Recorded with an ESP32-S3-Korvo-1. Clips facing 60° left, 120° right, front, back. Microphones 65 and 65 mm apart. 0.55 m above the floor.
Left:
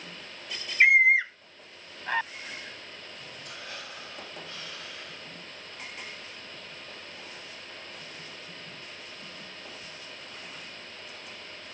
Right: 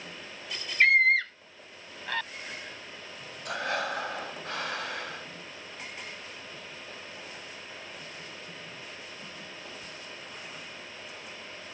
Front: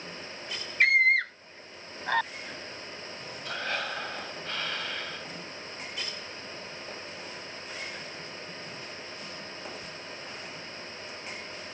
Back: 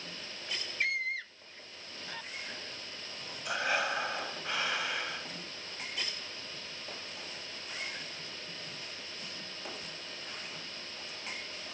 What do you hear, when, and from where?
0.8 s a scream: 15° right; by 2.3 s 10° right
3.5 s breathing: 105° right